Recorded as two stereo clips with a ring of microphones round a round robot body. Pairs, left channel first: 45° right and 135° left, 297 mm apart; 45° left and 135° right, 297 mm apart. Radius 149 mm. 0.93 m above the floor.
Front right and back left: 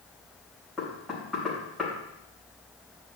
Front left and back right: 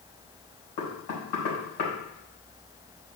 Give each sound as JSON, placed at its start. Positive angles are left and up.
{"t": 0.8, "sound": "knocking", "azimuth_deg": 45, "distance_m": 4.0}